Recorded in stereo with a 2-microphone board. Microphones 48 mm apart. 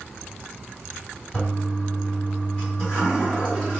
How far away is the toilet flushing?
About 1.9 m.